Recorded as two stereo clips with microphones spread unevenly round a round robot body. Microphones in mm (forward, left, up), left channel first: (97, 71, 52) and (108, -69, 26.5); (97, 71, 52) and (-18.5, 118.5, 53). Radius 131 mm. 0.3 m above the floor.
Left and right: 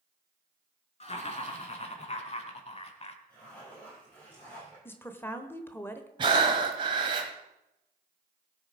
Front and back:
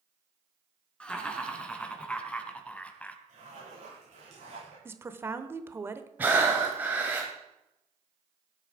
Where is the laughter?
60° left, 4.5 m; by 3.2 s 55° left, 2 m.